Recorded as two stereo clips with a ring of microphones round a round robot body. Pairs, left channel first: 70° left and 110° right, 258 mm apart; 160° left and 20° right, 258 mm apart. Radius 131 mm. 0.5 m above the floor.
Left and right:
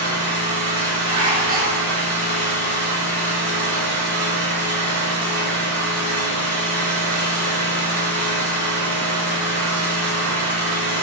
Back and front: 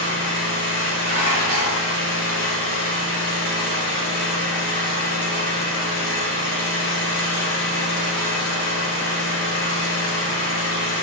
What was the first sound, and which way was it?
An engine running, 175° right.